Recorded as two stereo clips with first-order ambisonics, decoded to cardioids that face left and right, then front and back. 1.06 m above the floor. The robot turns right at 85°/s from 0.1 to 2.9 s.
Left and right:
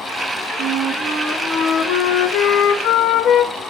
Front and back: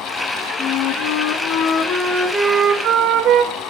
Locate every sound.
0.6 s a flute: 55° right, 1.5 m; by 3.5 s 145° left, 1.5 m